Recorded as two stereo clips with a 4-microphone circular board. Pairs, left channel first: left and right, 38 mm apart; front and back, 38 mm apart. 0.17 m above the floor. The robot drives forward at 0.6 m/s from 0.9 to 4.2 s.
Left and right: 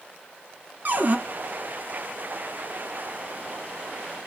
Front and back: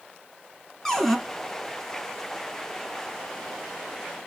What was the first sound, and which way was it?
A cupboard door, 75° right.